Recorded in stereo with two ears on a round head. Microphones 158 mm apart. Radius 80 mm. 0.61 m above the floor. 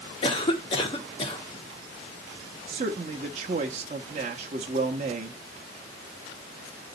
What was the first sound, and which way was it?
A cough, 30° left (ahead or behind).